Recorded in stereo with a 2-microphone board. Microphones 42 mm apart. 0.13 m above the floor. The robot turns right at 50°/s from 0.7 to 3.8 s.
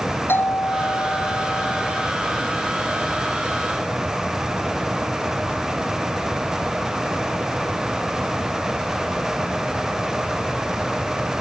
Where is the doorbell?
60° left; by 2.1 s 130° left.